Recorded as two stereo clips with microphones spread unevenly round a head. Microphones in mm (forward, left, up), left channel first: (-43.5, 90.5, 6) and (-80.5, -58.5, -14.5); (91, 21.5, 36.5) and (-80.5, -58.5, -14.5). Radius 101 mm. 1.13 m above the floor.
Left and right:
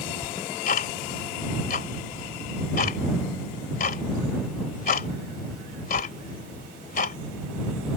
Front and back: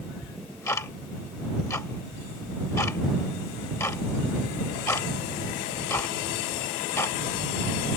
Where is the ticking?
100° left.